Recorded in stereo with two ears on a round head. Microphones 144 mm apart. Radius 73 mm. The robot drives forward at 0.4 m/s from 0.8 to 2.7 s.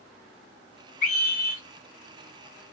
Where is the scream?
50° left (ahead or behind), 2 m.